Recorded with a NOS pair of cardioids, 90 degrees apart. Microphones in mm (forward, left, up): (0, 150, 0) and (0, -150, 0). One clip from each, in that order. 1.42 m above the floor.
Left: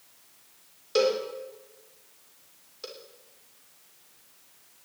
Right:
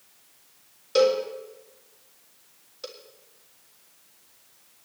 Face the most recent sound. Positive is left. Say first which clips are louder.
# right 4 dB
turn(degrees=-5)